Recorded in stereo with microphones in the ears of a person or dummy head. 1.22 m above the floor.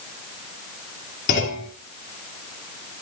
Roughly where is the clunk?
Left.